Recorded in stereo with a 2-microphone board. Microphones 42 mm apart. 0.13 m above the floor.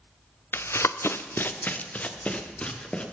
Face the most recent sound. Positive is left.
turn(degrees=30)  # may be behind; listen again after turning